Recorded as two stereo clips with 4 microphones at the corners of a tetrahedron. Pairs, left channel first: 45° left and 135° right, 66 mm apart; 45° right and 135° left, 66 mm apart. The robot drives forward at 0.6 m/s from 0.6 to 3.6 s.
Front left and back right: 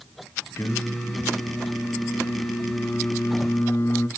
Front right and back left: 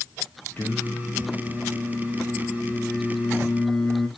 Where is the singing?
10° left, 3 m; by 4.1 s 30° left, 1.9 m.